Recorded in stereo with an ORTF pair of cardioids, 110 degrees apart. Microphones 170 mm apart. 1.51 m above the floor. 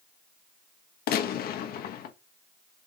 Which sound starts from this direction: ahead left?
A gunshot, at 1.1 s.